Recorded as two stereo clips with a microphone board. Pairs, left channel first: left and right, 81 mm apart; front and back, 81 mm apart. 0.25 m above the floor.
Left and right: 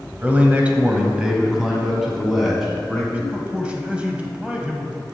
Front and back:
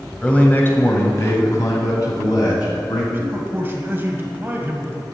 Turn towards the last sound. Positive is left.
turn(degrees=-150)